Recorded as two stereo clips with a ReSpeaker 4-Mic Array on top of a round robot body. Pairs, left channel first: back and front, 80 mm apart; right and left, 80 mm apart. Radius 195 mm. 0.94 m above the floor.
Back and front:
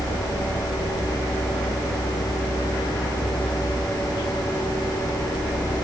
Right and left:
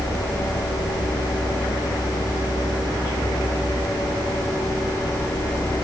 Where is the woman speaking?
I don't hear a woman speaking.